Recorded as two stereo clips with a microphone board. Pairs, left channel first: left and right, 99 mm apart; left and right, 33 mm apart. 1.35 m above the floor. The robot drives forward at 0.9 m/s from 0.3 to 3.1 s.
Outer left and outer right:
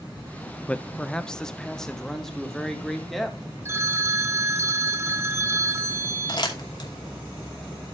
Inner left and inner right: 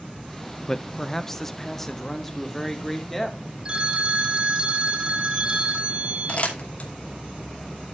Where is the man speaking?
15° left (ahead or behind), 0.5 m; by 3.4 s 5° left (ahead or behind), 2.5 m.